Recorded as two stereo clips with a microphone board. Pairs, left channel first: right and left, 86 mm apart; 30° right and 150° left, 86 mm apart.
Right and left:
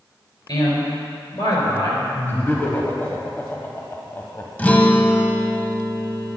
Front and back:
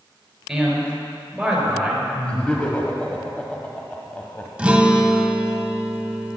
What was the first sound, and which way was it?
A man speaking, 125° right.